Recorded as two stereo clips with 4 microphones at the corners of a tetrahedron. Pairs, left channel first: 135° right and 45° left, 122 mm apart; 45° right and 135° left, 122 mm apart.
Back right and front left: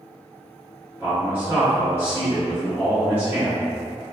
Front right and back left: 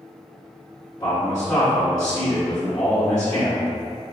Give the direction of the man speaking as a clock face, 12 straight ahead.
12 o'clock.